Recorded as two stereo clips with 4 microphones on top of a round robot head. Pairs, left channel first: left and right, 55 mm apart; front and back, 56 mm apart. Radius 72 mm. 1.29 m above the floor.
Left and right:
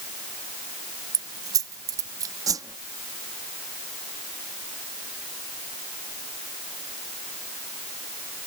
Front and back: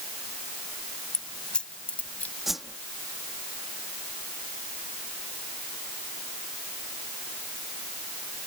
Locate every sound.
1.1 s keys jangling: 80° right; by 2.4 s 65° right
2.5 s a whoosh: 95° right